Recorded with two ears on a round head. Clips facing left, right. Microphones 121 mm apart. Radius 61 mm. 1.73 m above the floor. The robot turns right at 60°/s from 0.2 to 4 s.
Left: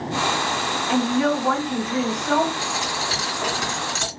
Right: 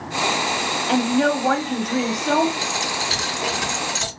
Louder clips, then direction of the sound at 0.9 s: Right 2 dB; 130° right.